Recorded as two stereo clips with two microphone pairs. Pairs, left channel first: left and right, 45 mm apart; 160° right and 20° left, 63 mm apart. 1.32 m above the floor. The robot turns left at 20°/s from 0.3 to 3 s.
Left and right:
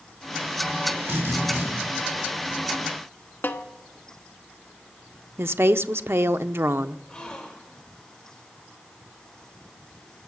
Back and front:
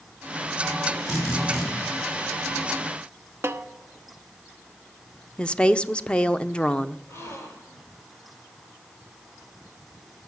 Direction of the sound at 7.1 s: 160° left.